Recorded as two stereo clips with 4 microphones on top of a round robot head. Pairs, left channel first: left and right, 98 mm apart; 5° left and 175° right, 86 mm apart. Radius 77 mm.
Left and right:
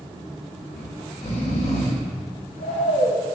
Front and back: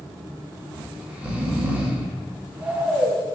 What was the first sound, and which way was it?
Snoring, 110° left.